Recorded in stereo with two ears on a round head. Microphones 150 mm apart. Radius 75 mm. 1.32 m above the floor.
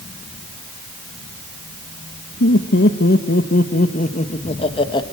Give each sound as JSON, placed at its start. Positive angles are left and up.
{"t": 2.4, "sound": "laughter", "side_deg": 70, "distance_m": 1.7}